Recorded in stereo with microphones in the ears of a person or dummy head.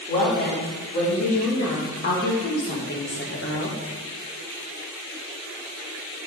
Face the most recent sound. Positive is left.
turn(degrees=50)  # may be behind; listen again after turning